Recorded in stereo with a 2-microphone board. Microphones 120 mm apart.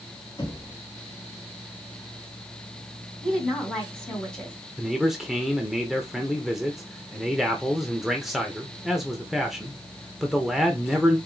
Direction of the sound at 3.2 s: 10° left (ahead or behind).